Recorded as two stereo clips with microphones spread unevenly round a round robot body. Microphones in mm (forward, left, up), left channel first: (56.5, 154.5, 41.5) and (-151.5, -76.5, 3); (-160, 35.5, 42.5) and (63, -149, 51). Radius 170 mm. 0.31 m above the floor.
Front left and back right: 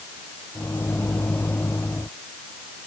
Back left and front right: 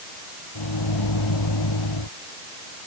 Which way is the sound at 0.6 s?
130° left.